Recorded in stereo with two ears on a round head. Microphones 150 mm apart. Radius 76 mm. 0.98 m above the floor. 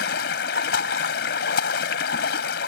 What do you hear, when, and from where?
0.0 s running water: 65° left (ahead or behind)